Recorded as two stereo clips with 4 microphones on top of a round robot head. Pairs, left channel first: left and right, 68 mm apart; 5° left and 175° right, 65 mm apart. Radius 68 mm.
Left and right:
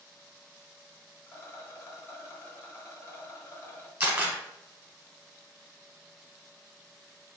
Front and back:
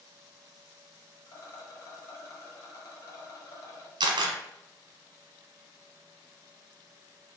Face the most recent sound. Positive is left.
turn(degrees=-165)